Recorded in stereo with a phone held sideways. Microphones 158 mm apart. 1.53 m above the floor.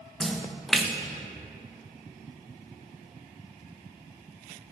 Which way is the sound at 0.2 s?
Centre (ahead or behind).